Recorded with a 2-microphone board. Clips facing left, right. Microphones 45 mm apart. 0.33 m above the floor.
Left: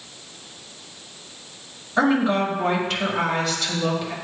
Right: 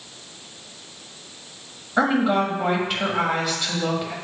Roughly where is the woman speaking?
Centre.